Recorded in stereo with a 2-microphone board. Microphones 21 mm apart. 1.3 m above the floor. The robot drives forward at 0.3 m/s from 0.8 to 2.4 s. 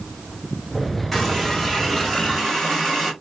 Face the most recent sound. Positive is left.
turn(degrees=5)  # may be behind; listen again after turning